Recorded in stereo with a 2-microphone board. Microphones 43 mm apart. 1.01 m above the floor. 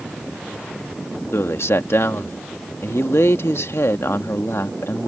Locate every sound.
1.3 s a man speaking: 75° left (ahead or behind)